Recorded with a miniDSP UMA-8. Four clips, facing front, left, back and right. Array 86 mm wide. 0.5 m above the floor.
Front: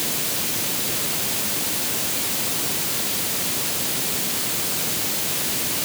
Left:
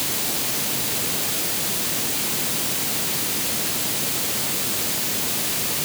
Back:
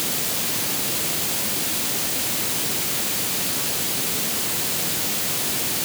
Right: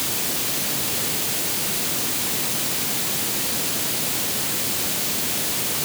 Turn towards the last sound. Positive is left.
No sound to turn to.